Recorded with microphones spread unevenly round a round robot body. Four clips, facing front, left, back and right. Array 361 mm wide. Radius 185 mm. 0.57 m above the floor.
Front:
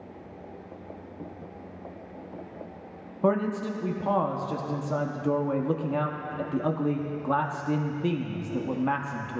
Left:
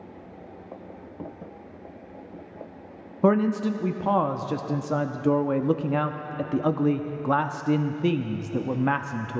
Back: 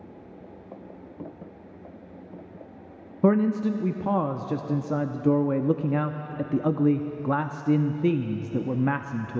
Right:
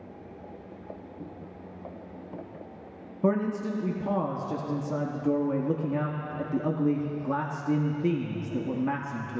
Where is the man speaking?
155° left, 0.6 m.